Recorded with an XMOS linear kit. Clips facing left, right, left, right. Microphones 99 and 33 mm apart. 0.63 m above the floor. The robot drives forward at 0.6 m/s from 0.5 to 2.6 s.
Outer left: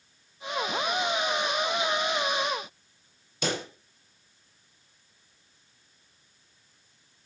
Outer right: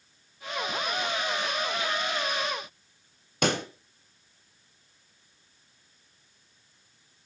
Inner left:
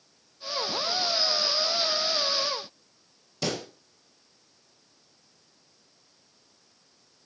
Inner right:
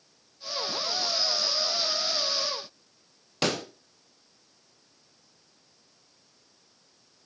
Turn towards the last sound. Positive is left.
turn(degrees=-60)  # may be behind; listen again after turning